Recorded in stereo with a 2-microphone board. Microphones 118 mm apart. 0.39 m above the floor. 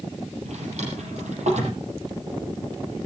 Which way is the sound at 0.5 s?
75° right (ahead or behind).